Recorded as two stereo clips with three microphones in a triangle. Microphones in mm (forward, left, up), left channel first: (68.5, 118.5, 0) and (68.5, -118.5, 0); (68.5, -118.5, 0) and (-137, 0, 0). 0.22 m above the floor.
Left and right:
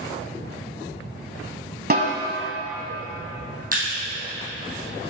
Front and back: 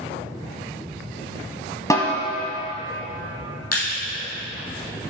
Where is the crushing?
35° right, 3 m.